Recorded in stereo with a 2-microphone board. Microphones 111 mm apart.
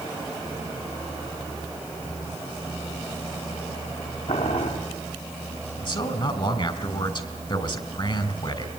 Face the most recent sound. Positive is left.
turn(degrees=45)  # may be behind; listen again after turning